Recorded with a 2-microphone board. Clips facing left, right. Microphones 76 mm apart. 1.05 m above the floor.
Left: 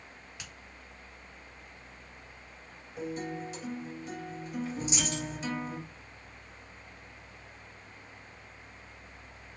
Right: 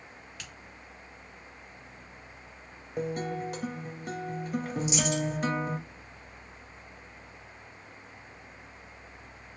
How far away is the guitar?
About 0.6 m.